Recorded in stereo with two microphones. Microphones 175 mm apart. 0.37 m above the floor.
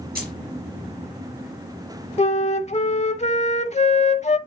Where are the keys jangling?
60° right (ahead or behind), 4.5 m.